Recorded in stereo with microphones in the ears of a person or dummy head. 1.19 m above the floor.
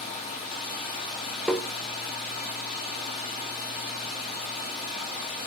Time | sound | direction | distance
0.0 | running water | 40° left (ahead or behind) | 2.5 m
1.5 | tapping | 5° left (ahead or behind) | 0.6 m